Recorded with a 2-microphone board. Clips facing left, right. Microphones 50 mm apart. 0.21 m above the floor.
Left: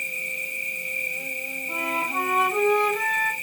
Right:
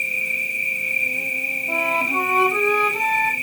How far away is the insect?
About 1.3 m.